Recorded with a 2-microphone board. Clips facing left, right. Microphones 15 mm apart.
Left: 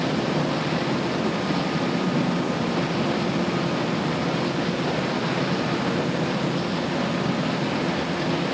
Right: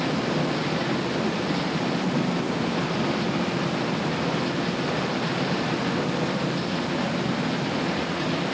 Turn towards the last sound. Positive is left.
No sound to turn to.